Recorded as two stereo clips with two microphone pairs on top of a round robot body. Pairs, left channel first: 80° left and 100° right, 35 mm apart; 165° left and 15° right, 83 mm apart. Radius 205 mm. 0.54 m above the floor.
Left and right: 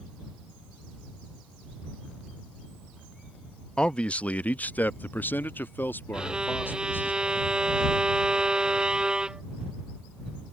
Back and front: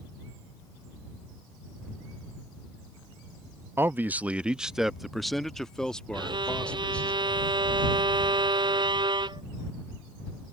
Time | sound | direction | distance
3.8 | a man speaking | 20° left | ?
6.1 | a violin | 40° right | ?